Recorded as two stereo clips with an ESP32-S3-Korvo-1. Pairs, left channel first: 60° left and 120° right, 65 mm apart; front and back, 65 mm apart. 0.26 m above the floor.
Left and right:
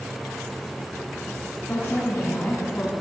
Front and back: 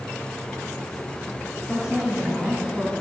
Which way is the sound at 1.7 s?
110° left.